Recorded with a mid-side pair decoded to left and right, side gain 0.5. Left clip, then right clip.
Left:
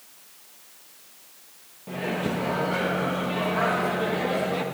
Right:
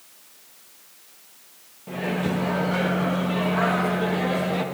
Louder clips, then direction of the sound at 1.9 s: Right 1 dB; 5° right.